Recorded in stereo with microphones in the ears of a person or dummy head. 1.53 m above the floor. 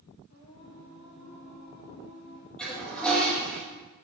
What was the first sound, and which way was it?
Singing, 80° left.